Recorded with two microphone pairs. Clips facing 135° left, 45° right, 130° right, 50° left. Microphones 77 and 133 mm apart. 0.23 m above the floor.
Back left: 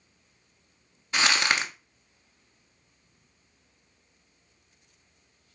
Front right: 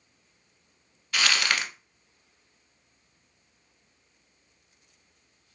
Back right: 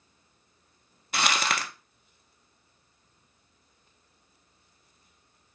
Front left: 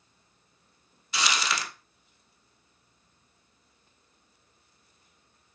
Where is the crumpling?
160° right, 0.7 m.